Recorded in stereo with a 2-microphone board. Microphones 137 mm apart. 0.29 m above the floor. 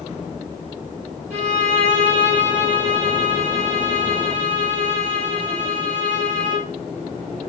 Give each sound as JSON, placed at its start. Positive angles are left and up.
{"t": 1.3, "sound": "a violin", "side_deg": -55, "distance_m": 3.0}